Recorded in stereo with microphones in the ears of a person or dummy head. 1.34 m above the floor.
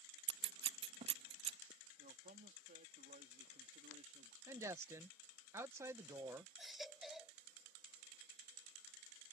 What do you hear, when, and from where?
0.3 s scissors: 30° right (ahead or behind)
2.0 s a man speaking: 40° right (ahead or behind)
4.5 s a woman speaking: 20° right (ahead or behind)
6.6 s a baby crying: 5° right (ahead or behind)